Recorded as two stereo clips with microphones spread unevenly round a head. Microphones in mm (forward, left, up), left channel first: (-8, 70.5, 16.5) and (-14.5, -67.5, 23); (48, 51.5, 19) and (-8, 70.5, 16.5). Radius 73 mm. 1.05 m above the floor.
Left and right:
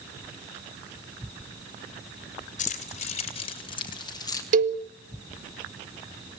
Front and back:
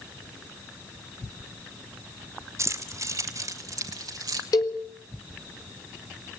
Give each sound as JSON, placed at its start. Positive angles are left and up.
{"t": 2.6, "sound": "keys jangling", "azimuth_deg": 125, "distance_m": 3.0}
{"t": 4.5, "sound": "a cowbell", "azimuth_deg": -60, "distance_m": 1.8}